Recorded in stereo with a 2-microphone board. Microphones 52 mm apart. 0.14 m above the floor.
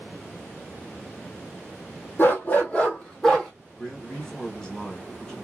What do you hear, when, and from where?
2.2 s a dog barking: 40° left (ahead or behind), 1.6 m; by 3.5 s 5° left (ahead or behind), 1.6 m
3.8 s a man speaking: 15° left (ahead or behind), 1.7 m